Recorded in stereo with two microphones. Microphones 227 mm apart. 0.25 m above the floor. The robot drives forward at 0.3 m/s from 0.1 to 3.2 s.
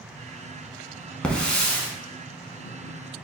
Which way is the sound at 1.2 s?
5° left (ahead or behind).